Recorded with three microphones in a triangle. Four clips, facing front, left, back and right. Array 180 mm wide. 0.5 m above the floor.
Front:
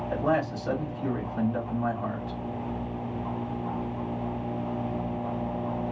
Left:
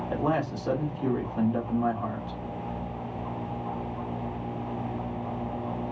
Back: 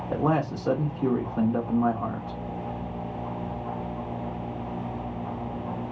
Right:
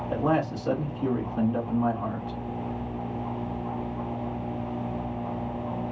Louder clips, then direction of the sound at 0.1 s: Right 3 dB, back 2 dB; 175° left.